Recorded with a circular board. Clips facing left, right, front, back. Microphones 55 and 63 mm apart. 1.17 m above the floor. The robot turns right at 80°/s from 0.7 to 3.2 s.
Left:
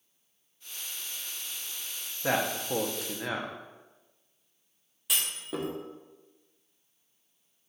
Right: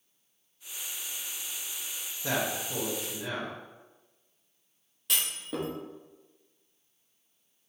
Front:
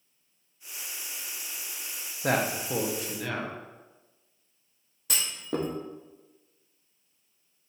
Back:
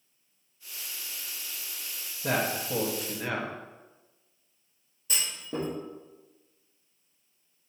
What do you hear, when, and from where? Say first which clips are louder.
2.2 s a man speaking: left 3 dB, front 2 dB; 30° left, 0.5 m; by 3.5 s 105° left, 0.5 m
5.1 s a clunk: even, front 3 dB; 5° left, 0.6 m